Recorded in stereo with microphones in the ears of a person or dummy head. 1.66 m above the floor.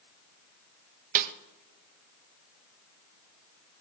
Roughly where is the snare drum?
Right.